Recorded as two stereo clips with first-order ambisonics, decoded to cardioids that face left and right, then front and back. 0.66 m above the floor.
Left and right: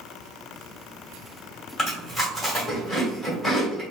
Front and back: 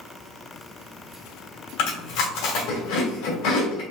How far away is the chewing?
About 2 m.